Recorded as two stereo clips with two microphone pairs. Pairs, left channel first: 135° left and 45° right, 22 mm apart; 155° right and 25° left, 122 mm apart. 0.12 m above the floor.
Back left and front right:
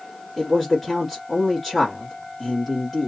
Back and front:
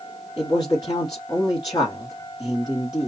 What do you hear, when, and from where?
0.4 s a man speaking: 135° right, 1.3 m